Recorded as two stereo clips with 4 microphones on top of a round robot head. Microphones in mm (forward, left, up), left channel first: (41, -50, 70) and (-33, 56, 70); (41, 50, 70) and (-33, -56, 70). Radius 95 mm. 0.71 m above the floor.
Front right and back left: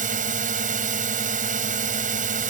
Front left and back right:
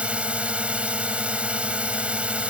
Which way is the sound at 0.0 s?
155° left.